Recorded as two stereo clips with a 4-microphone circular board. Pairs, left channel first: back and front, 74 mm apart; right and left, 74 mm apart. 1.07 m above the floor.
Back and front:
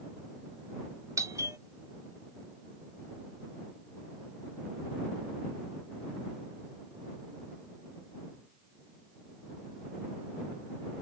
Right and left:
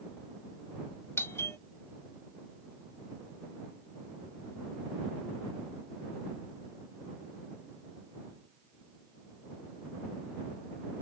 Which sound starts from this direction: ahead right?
A doorbell, at 1.2 s.